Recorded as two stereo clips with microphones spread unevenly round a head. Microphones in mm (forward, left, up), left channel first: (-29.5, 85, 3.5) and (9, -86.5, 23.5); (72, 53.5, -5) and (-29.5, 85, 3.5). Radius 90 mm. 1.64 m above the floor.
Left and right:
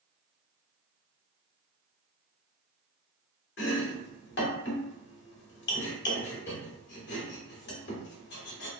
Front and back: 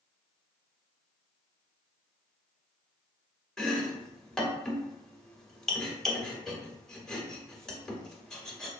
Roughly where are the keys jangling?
I don't hear keys jangling.